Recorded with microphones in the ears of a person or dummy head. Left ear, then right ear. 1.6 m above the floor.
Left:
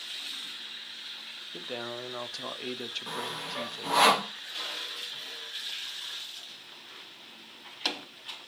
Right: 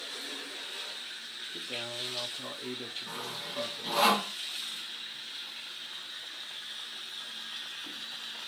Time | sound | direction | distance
1.5 | a man speaking | 35° left (ahead or behind) | 0.6 m
3.1 | sawing | 55° left (ahead or behind) | 0.9 m